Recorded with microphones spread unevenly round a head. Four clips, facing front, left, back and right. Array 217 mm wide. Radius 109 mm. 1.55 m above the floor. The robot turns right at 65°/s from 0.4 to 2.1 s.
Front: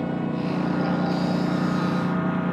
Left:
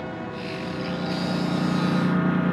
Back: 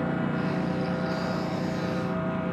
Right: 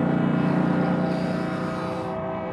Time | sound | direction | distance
0.0 | a lawn mower | 65° right | ?